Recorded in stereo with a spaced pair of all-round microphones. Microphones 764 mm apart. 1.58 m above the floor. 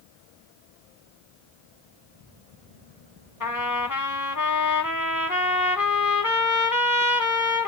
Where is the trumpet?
25° left (ahead or behind), 0.9 m.